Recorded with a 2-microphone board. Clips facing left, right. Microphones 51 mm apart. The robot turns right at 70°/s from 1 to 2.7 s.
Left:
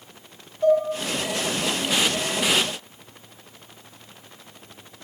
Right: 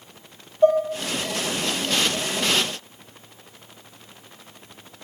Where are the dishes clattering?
40° right (ahead or behind), 3.5 m.